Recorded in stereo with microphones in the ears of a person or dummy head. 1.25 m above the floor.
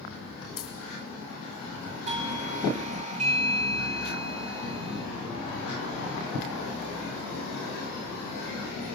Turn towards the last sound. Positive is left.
turn(degrees=-25)  # may be behind; listen again after turning